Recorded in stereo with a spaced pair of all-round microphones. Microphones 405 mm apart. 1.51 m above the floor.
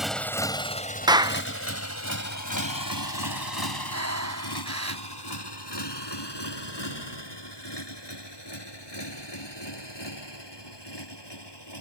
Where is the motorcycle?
Centre (ahead or behind); by 11.8 s 85° left.